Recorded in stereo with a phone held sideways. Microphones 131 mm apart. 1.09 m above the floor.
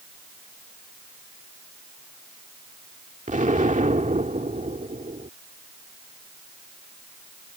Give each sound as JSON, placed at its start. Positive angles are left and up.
{"t": 3.3, "sound": "an explosion", "side_deg": -75}